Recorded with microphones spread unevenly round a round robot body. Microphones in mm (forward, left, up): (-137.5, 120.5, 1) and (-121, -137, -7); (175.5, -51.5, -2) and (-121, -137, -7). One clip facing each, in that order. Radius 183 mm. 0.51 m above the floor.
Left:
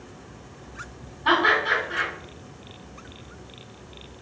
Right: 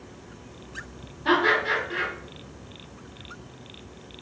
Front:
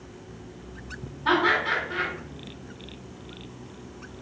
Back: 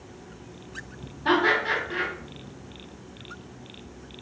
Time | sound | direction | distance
1.2 | laughter | 130° right | 1.8 m